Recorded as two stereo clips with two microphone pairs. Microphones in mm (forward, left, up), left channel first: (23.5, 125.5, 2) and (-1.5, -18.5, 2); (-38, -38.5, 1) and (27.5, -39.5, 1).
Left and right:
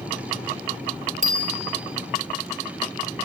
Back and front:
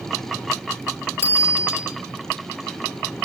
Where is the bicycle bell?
130° right, 4 m.